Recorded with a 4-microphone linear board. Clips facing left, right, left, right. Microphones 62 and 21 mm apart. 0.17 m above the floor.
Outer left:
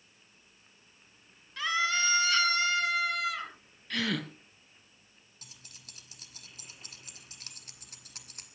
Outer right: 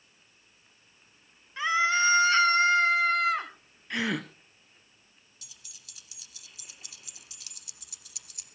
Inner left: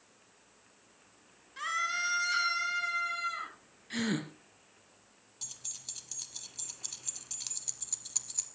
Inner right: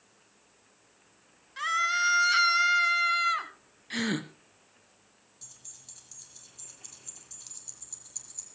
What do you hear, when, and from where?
1.6 s a scream: 20° right (ahead or behind), 2.5 m; by 3.5 s 40° right (ahead or behind), 2.0 m
3.9 s a gasp: 20° right (ahead or behind), 1.2 m
5.4 s keys jangling: 40° left (ahead or behind), 1.8 m